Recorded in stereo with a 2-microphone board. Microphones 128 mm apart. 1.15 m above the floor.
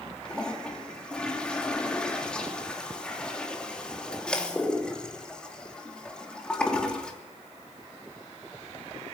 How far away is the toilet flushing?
About 3 m.